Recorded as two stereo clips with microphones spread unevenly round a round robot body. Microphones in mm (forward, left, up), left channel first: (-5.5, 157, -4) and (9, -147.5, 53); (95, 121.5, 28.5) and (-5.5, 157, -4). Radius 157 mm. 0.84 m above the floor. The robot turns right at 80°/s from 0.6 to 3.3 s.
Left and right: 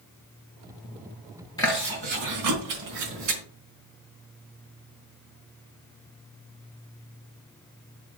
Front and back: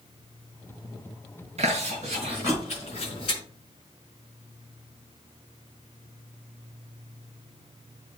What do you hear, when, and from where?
1.6 s chewing: 170° left, 4 m; by 3.4 s 50° right, 4 m